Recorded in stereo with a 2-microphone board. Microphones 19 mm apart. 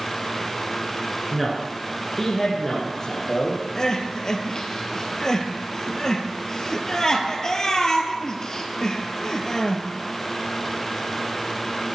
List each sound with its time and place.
1.3 s a man speaking: 5° left (ahead or behind), 1.7 m; by 3.6 s 35° left (ahead or behind), 3.5 m
3.8 s crying: 35° left (ahead or behind), 1.3 m